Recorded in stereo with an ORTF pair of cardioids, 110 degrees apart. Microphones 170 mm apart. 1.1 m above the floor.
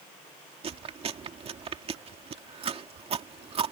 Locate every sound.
0.6 s chewing: 40° right